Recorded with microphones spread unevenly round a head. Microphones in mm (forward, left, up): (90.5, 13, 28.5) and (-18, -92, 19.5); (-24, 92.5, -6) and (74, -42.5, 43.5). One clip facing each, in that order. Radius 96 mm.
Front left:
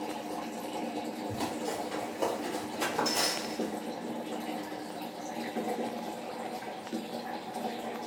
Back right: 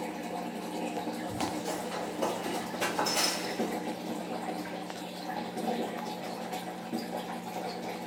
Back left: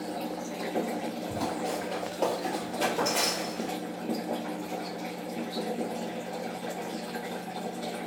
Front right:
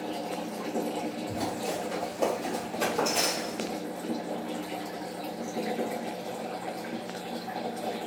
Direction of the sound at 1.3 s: 25° right.